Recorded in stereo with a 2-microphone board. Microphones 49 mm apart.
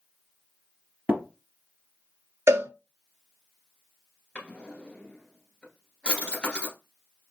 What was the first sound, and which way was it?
Tapping, 35° right (ahead or behind).